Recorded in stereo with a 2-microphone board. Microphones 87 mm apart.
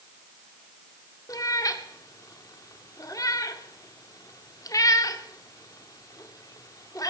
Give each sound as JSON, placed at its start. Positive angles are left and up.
{"t": 1.3, "sound": "a cat meowing", "side_deg": 45, "distance_m": 1.0}